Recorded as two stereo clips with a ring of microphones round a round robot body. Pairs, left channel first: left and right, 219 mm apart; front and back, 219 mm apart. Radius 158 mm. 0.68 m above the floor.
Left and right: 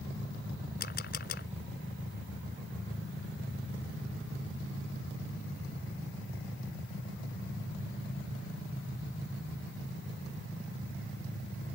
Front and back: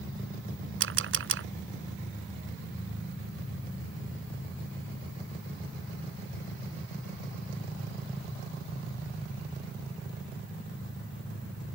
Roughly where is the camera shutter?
Behind left.